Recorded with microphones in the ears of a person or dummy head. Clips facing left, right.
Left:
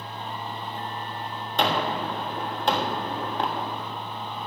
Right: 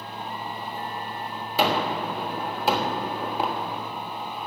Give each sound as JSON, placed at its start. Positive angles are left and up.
{"t": 1.6, "sound": "a gunshot", "side_deg": -5, "distance_m": 1.4}